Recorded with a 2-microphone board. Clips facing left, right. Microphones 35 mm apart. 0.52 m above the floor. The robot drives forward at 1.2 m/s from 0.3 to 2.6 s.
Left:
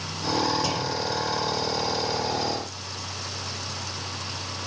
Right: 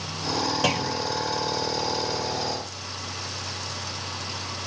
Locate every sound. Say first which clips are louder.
0.6 s a clunk: right 2 dB; 65° right (ahead or behind), 1.7 m